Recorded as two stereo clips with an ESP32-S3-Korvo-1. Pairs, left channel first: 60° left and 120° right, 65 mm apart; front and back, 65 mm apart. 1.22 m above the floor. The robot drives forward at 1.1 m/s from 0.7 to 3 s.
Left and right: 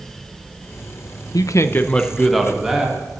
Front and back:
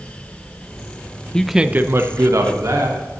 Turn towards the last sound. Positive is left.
turn(degrees=160)